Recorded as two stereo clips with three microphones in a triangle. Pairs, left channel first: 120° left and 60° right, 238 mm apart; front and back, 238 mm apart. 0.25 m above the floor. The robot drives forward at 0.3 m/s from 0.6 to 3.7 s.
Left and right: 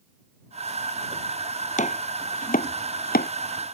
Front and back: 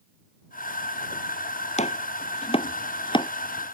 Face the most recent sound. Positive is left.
turn(degrees=75)